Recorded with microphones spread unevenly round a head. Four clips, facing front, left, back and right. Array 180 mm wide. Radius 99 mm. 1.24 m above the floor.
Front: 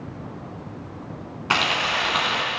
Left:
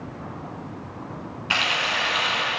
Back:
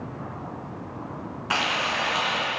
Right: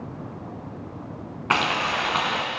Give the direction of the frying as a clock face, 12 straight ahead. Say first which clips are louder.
Right 3 dB, front 3 dB; 2 o'clock.